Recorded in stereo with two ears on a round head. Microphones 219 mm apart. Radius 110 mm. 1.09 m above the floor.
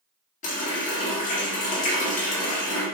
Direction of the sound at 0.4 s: 30° left (ahead or behind).